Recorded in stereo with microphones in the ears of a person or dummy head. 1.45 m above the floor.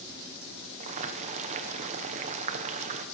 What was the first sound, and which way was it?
Boiling, 40° right (ahead or behind).